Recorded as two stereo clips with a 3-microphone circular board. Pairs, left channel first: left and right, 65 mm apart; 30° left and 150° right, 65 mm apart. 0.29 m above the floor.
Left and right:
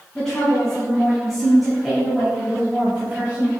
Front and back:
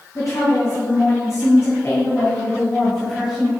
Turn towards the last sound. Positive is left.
turn(degrees=-80)